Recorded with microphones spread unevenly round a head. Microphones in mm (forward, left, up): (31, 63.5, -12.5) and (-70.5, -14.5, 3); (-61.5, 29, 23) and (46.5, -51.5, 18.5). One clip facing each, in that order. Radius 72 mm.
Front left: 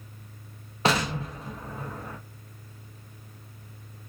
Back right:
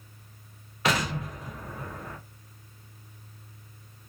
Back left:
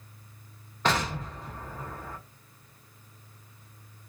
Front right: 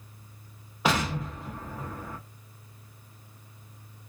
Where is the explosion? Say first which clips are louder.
Front left 2 dB, front right 1 dB; 35° left, 0.7 m.